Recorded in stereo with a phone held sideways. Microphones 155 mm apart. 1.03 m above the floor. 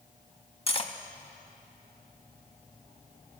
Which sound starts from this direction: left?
Cutlery clinking, at 0.7 s.